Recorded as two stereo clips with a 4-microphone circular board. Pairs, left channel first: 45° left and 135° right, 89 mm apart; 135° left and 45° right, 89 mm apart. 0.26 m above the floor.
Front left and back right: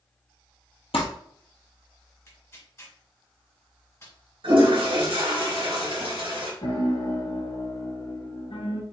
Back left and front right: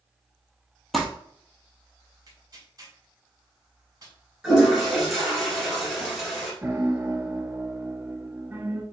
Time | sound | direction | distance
0.9 | crumpling | 45° left | 1.1 m
2.3 | tearing paper | 5° right | 1.9 m
4.4 | a toilet flushing | 130° right | 2 m
6.6 | a piano | 20° left | 0.8 m